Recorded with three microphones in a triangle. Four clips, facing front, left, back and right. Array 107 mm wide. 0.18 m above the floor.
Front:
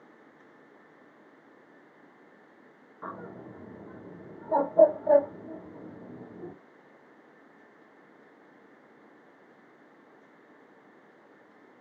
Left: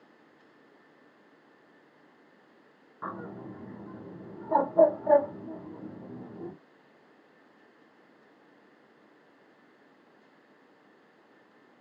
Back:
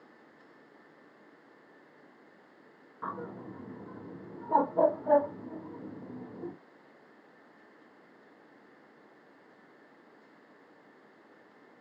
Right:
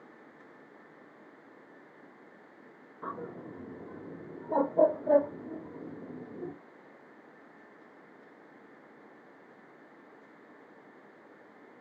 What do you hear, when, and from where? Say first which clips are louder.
3.0 s a bird: left 1 dB, back 2 dB; 100° left, 1.9 m